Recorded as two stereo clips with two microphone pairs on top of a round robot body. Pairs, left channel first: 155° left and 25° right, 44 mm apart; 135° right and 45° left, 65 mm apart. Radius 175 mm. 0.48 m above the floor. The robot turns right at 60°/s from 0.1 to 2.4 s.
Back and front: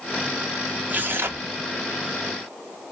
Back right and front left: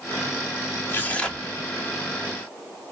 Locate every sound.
0.9 s tearing paper: 80° right, 1.2 m; by 1.5 s 45° right, 1.2 m